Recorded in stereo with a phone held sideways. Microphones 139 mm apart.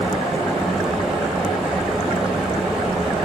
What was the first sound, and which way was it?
A fan, centre (ahead or behind).